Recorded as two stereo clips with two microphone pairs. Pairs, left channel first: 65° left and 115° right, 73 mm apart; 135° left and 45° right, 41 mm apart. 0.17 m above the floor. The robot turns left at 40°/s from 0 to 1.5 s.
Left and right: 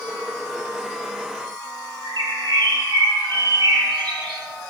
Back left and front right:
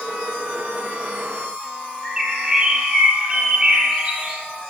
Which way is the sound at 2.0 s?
110° right.